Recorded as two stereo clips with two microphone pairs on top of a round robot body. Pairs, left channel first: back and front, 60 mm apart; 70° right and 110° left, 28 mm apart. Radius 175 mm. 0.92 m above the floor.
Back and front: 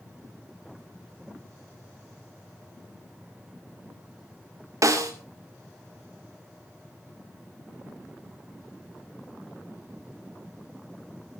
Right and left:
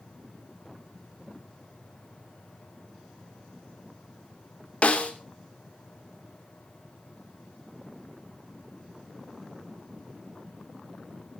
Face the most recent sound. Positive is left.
turn(degrees=-30)